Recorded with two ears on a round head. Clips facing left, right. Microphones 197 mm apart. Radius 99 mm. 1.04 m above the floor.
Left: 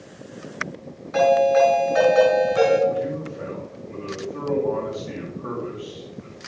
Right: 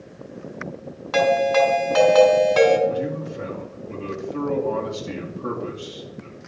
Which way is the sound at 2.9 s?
55° right (ahead or behind).